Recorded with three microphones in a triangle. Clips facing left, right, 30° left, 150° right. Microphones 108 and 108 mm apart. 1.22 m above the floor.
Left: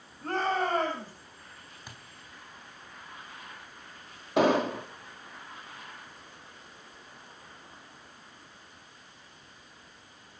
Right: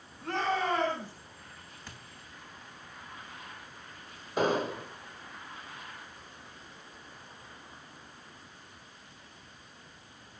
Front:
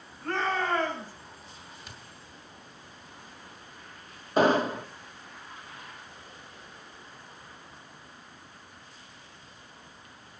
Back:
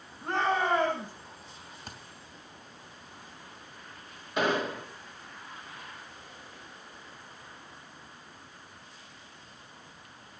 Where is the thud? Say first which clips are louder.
Even, back 5 dB; 165° left, 3.5 m.